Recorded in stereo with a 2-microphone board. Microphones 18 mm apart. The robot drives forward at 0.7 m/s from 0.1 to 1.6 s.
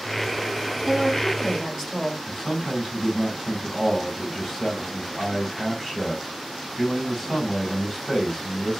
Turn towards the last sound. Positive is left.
turn(degrees=5)  # may be behind; listen again after turning